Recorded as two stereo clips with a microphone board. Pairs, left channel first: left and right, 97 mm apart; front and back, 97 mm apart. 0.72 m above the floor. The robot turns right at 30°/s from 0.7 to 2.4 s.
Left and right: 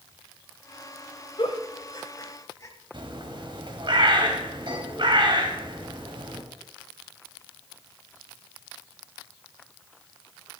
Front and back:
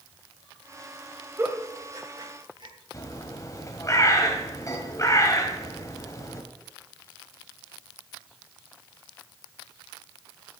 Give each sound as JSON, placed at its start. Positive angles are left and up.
{"t": 1.4, "sound": "a giggle", "azimuth_deg": 115, "distance_m": 1.7}
{"t": 2.9, "sound": "a bird", "azimuth_deg": -55, "distance_m": 1.8}